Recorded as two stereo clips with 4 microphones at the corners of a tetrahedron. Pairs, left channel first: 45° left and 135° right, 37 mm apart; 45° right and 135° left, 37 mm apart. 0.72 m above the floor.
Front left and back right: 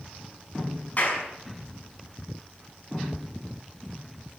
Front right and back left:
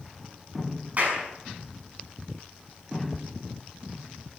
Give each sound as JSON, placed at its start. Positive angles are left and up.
{"t": 1.0, "sound": "a clap", "azimuth_deg": 90, "distance_m": 6.0}